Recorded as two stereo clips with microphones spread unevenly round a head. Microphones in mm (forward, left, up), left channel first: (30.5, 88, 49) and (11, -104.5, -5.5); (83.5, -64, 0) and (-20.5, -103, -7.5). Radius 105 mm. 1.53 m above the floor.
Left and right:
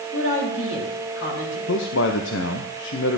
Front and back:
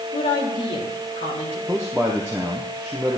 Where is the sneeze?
I don't hear a sneeze.